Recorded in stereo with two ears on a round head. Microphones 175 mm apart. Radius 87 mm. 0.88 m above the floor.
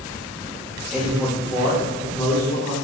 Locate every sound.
0.9 s a man speaking: 5° left (ahead or behind), 0.7 m; by 2.8 s 50° left (ahead or behind), 1.3 m